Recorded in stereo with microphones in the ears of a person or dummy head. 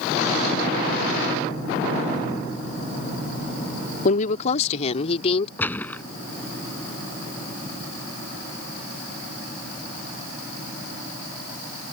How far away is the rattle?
I don't hear a rattle.